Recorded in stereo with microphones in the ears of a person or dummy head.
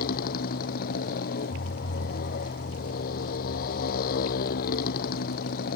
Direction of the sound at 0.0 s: 55° left (ahead or behind).